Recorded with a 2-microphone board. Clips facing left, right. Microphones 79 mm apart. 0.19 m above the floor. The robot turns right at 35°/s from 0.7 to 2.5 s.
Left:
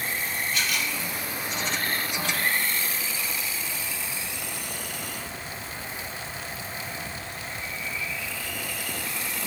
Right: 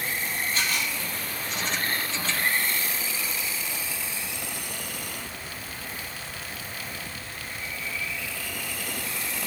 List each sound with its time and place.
0.5 s a camera shutter: 35° right (ahead or behind), 1.4 m; by 0.9 s 40° right (ahead or behind), 1.4 m